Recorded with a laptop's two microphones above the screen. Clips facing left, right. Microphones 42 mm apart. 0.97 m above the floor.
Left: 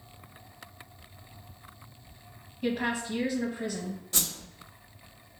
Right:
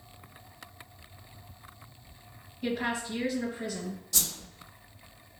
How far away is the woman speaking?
About 1.0 m.